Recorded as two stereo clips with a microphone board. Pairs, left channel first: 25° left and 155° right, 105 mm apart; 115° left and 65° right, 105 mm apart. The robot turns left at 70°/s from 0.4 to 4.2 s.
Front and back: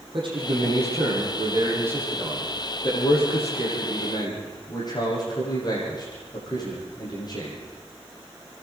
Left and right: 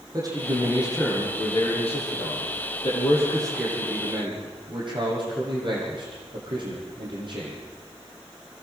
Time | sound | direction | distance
0.1 | a man speaking | 120° right | 10 m